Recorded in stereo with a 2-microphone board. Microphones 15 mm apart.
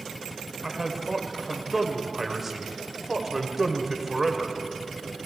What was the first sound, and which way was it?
A man speaking, 20° right (ahead or behind).